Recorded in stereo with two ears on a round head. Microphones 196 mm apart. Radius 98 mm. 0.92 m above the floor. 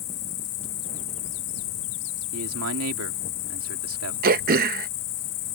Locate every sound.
0.0 s an insect: 80° left
2.3 s a man speaking: 70° right (ahead or behind)
4.2 s throat clearing: 40° right (ahead or behind)